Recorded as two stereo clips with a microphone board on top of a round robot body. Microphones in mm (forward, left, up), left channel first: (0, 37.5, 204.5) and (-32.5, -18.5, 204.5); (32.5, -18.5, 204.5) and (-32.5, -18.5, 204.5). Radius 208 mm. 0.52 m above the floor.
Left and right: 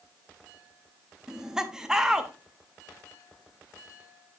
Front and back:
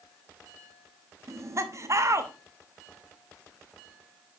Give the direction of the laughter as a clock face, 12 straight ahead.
7 o'clock.